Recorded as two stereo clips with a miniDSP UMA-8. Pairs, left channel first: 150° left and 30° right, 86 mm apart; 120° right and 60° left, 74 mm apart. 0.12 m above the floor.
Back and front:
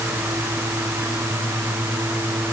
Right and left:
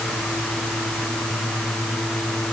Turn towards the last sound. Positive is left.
No sound to turn to.